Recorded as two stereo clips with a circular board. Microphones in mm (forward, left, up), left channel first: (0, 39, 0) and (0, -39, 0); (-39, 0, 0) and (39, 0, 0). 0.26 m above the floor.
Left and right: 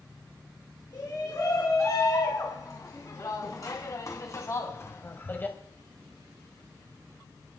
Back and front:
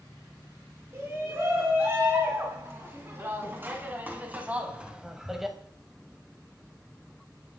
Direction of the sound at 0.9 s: 55° left.